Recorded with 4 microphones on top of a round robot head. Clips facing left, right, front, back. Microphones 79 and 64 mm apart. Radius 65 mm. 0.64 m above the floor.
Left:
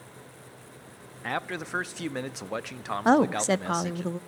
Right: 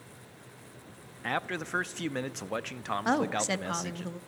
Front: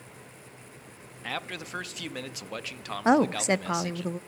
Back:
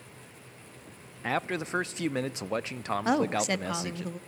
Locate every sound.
1.2 s a man speaking: 175° left, 0.5 m
3.0 s a woman speaking: 55° left, 0.7 m